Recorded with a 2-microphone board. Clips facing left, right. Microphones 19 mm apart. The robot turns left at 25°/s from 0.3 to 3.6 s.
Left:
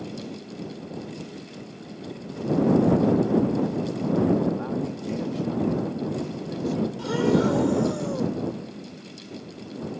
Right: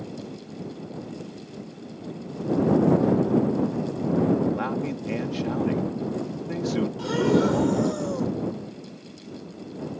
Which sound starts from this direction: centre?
Breathing, at 7.0 s.